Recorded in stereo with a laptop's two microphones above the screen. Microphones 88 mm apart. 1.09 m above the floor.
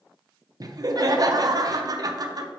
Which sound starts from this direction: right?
Laughter, at 0.6 s.